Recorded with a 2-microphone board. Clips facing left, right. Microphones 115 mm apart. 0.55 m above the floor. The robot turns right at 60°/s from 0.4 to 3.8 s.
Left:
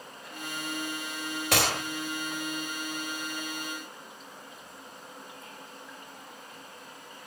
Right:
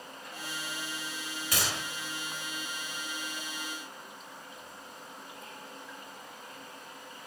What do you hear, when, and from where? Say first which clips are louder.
1.5 s a gunshot: left 7 dB; 70° left (ahead or behind), 0.8 m; by 1.8 s 50° left (ahead or behind), 0.8 m